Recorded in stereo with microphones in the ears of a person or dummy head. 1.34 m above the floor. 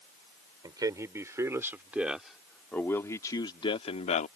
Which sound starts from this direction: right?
A man speaking, at 0.6 s.